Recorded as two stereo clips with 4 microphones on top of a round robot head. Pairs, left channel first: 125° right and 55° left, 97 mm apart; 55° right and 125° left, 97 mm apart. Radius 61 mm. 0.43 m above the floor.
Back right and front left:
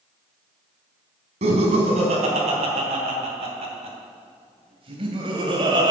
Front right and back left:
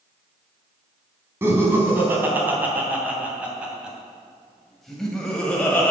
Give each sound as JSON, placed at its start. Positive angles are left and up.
{"t": 1.4, "sound": "laughter", "azimuth_deg": 60, "distance_m": 3.5}